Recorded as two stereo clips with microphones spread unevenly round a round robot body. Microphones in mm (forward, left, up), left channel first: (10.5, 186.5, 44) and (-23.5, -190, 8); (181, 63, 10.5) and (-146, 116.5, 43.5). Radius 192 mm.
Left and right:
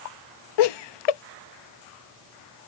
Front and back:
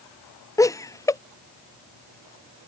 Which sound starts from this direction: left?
Laughter, at 0.6 s.